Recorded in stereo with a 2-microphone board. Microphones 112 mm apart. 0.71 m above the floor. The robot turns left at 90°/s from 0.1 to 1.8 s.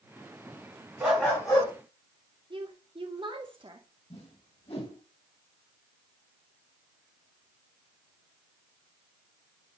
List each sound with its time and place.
1.0 s a dog barking: 165° right, 2.5 m; by 1.7 s 130° left, 2.5 m
2.5 s a woman speaking: 50° right (ahead or behind), 1.3 m
4.1 s a whoosh: 65° left (ahead or behind), 2.5 m